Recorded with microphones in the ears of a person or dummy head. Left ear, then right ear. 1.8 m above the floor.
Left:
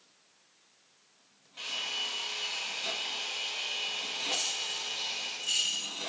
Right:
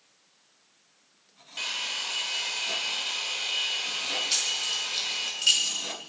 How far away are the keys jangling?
About 3 m.